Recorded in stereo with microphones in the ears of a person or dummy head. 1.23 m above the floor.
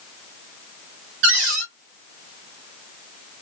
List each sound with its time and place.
1.2 s a cupboard door: 70° right (ahead or behind), 1.4 m